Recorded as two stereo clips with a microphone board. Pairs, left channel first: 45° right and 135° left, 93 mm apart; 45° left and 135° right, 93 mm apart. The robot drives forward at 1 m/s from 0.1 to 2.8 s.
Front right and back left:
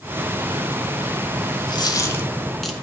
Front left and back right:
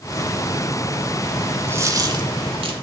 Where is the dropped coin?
70° right, 0.9 m; by 2.7 s 135° right, 1.2 m.